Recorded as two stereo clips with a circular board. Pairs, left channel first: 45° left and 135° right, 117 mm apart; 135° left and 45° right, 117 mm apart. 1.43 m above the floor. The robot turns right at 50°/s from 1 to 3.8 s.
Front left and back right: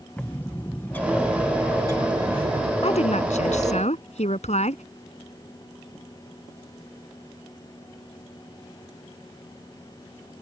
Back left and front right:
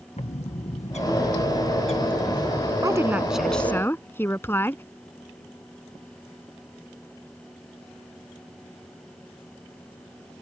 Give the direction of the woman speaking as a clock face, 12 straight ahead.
12 o'clock.